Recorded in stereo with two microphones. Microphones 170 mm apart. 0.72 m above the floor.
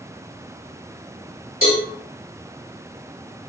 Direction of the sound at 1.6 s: 55° left (ahead or behind).